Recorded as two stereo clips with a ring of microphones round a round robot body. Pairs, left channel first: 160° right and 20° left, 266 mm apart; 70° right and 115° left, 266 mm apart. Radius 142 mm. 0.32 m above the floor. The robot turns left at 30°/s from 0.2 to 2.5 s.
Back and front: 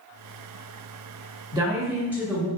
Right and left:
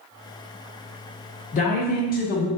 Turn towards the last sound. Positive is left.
turn(degrees=-65)